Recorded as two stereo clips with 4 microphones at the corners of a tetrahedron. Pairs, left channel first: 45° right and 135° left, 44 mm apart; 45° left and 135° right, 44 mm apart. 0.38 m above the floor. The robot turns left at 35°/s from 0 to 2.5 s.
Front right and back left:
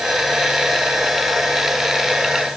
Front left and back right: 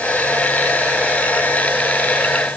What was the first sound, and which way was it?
Only background noise.